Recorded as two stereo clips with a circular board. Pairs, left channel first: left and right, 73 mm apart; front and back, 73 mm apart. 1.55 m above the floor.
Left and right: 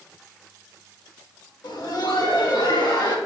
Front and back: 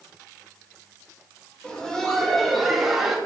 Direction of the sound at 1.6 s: 75° left.